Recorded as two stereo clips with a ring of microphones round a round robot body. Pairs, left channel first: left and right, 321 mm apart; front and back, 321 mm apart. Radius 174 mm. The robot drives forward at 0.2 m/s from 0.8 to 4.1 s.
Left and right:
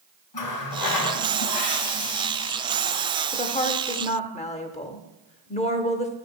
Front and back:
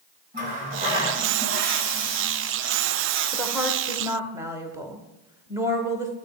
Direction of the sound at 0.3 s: 120° left.